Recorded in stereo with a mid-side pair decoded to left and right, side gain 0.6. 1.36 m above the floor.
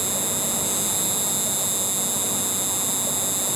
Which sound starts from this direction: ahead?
An insect, at 0.0 s.